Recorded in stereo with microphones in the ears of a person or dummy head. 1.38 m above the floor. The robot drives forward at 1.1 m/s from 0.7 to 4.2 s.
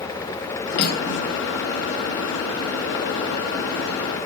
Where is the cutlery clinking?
55° left (ahead or behind), 4.5 m; by 1.3 s 65° left (ahead or behind), 4.5 m.